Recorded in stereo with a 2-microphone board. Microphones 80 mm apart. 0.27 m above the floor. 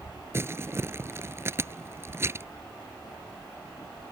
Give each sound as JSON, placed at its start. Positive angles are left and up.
{"t": 0.3, "sound": "crumpling", "side_deg": -30}